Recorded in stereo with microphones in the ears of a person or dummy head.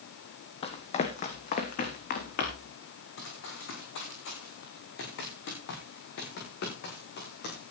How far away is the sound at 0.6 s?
About 2 m.